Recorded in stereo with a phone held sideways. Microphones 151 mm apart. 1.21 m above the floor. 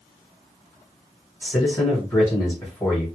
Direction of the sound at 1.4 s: 15° left (ahead or behind).